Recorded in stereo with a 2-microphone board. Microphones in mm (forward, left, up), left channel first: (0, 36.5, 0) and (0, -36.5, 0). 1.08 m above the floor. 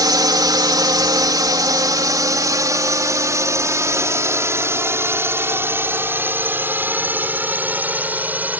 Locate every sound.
0.0 s a drone: 60° right (ahead or behind); by 8.6 s 25° right (ahead or behind)